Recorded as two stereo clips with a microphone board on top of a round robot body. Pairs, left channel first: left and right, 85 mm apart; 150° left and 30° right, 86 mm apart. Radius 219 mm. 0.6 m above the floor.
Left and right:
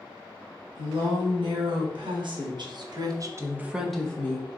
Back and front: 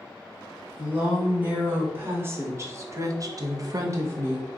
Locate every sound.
0.8 s a woman speaking: 100° right, 1.9 m; by 4.5 s 30° left, 0.8 m